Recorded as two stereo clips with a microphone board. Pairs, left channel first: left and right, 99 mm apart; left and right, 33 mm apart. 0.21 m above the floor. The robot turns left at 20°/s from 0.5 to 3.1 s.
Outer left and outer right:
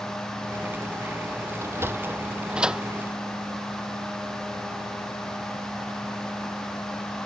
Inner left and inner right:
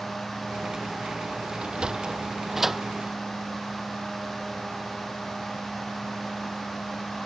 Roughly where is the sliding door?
Right.